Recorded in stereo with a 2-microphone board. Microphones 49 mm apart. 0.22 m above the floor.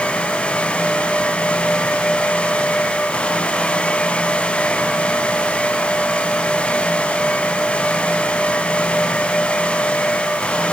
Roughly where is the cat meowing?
I don't hear a cat meowing.